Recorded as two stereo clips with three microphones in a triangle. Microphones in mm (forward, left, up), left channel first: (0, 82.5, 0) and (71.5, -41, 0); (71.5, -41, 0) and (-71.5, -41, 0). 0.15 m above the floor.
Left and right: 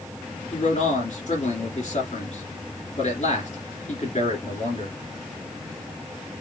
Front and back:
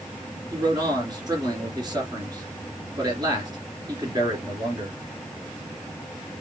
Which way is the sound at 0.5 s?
125° left.